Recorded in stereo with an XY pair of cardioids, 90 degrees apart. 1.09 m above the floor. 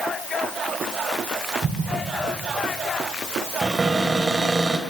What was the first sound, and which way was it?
An explosion, 60° right.